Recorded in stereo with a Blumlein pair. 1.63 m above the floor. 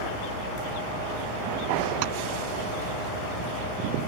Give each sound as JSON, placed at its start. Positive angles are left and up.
{"t": 2.0, "sound": "tapping", "azimuth_deg": -45}